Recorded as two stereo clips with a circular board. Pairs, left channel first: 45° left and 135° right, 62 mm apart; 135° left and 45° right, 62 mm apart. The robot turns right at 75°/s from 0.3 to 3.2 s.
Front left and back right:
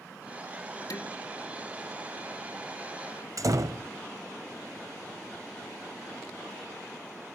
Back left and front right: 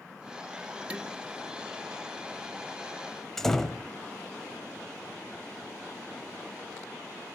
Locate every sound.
0.9 s dishes clattering: 25° left, 3.5 m; by 1.1 s 40° left, 3.5 m
3.4 s a door slam: 145° right, 1.4 m